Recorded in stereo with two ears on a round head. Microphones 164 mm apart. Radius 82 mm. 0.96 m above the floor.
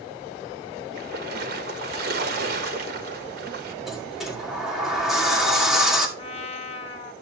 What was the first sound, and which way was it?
A splash, 55° right (ahead or behind).